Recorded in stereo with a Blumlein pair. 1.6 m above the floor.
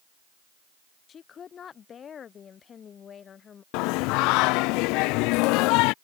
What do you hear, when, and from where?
1.1 s a woman speaking: 25° left
3.7 s singing: 40° left